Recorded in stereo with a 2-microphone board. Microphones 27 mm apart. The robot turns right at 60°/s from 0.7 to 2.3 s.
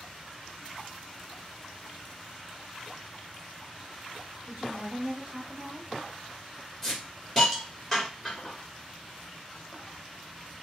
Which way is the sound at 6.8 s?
10° left (ahead or behind).